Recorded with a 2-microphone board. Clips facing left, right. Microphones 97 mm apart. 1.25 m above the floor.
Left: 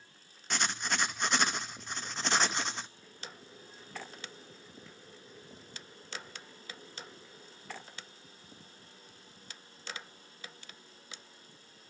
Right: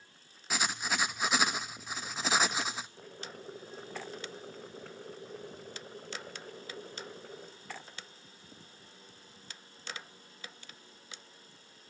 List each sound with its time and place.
0.5 s writing: 5° right (ahead or behind), 0.9 m
3.0 s boiling: 60° right (ahead or behind), 1.9 m